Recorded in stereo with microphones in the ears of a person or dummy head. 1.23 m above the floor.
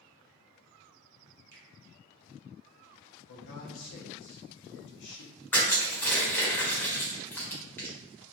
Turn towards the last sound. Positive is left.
turn(degrees=10)  # may be behind; listen again after turning